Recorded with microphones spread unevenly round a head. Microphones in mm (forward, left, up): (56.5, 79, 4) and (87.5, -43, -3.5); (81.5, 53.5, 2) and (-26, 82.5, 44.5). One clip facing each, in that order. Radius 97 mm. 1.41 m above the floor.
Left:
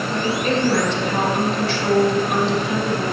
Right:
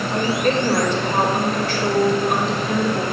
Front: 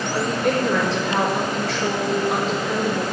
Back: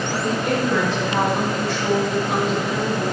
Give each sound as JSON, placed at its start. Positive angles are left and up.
{"t": 0.1, "sound": "a woman speaking", "azimuth_deg": -30, "distance_m": 6.5}